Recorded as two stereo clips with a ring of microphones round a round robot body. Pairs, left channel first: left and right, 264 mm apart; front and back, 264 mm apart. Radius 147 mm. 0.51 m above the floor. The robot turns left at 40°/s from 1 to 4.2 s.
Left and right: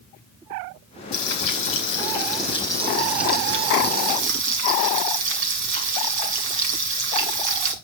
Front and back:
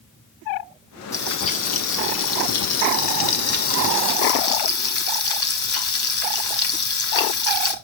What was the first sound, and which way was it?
Frying, 80° left.